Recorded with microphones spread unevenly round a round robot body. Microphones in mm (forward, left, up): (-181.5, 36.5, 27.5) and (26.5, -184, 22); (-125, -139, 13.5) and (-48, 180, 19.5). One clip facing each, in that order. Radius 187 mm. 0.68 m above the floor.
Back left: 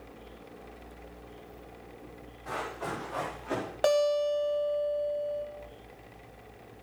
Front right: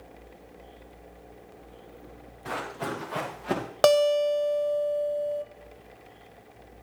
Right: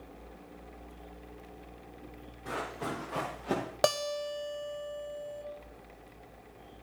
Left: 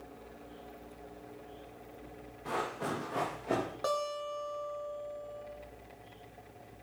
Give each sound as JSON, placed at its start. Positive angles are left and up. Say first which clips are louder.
{"t": 2.5, "sound": "running footsteps", "louder": "front right 3 dB, left 1 dB", "azimuth_deg": -10, "distance_m": 4.0}
{"t": 3.8, "sound": "a guitar", "louder": "front right 5 dB, right 5 dB", "azimuth_deg": -75, "distance_m": 1.1}